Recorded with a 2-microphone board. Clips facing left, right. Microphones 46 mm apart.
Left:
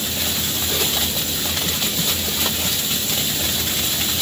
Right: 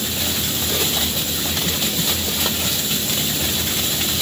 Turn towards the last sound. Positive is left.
No sound to turn to.